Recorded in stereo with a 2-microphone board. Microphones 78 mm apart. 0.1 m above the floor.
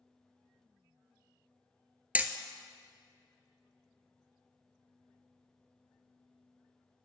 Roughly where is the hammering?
Centre.